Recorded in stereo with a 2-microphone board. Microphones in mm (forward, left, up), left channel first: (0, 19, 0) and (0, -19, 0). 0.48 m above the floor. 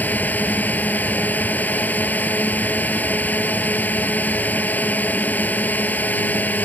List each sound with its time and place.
0.0 s a drone: 55° left (ahead or behind)